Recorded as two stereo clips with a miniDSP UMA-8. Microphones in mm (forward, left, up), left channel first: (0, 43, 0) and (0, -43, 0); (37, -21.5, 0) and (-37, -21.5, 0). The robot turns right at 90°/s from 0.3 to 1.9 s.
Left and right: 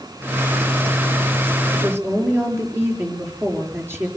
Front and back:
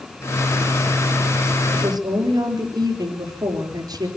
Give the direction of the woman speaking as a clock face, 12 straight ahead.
6 o'clock.